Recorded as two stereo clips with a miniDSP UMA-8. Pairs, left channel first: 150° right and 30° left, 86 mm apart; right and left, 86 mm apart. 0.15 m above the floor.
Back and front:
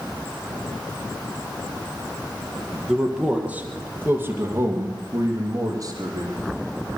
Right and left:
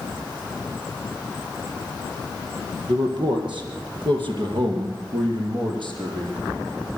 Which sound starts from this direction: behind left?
A man speaking, at 2.9 s.